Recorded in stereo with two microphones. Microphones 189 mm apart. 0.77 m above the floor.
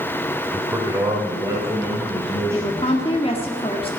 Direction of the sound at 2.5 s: 30° left (ahead or behind).